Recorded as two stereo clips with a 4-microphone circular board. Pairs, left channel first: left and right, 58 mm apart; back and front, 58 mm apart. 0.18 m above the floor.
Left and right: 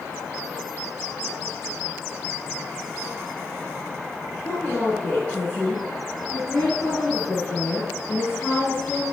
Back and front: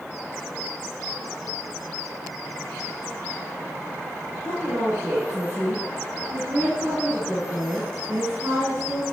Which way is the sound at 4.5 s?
35° left.